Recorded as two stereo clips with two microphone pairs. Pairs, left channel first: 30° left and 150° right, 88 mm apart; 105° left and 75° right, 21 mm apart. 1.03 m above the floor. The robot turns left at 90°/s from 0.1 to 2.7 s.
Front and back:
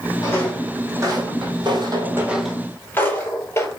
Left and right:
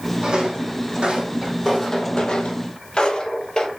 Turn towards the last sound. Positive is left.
turn(degrees=80)